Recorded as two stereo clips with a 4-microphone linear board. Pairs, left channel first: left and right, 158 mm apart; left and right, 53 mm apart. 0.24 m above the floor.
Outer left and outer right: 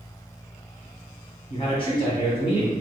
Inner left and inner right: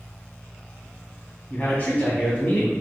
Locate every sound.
1.5 s a man speaking: 35° left (ahead or behind), 1.8 m